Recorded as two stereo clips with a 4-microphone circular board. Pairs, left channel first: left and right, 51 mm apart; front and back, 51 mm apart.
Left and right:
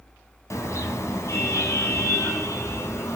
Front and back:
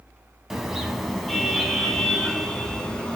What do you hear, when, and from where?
0.5 s a car horn: 95° left, 3 m; by 3.1 s 75° left, 4 m